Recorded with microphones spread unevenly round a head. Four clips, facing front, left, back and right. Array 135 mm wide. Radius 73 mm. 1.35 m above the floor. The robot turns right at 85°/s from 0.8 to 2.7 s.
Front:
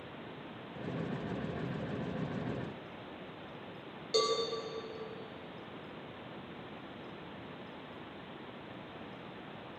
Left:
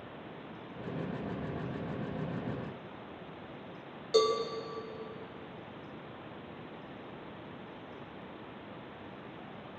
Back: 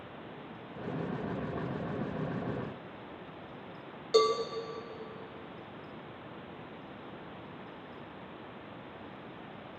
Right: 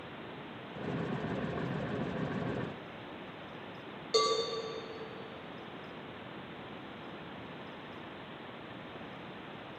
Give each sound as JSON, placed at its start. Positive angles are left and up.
{"t": 4.1, "sound": "a cowbell", "azimuth_deg": -170, "distance_m": 2.5}